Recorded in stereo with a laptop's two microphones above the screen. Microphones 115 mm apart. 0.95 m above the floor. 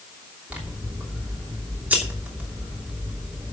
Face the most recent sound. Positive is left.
turn(degrees=-15)  # may be behind; listen again after turning